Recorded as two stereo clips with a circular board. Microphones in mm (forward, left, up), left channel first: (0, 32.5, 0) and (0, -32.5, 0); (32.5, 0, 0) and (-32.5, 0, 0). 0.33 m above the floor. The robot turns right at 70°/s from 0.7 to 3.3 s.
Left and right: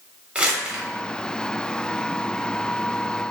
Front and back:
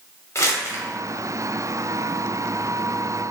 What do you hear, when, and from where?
0.3 s crumpling: 20° right, 0.8 m; by 0.8 s 15° right, 0.8 m